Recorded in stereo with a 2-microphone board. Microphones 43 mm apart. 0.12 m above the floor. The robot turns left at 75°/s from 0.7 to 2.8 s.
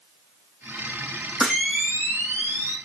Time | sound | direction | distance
1.4 | a camera shutter | straight ahead | 4.5 m